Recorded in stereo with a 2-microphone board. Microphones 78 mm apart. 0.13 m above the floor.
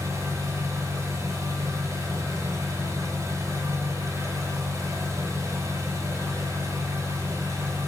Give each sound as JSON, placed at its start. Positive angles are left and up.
{"t": 0.0, "sound": "an engine running", "side_deg": -40, "distance_m": 0.9}